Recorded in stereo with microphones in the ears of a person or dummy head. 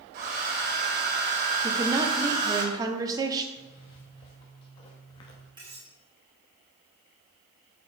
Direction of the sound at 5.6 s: 25° right (ahead or behind).